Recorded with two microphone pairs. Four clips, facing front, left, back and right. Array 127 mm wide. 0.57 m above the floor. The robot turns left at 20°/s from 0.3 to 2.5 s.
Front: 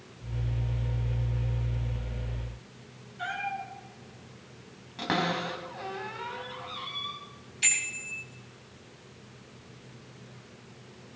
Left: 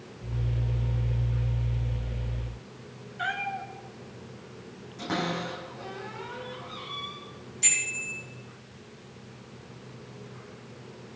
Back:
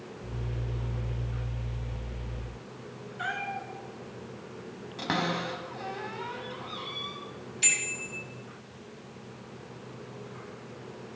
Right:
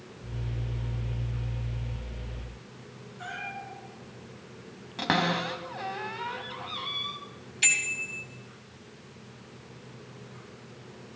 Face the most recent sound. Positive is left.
turn(degrees=-95)